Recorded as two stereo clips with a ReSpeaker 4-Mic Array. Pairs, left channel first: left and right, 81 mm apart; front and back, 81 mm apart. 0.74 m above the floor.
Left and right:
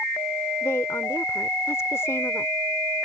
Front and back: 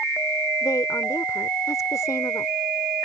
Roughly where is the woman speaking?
Ahead left.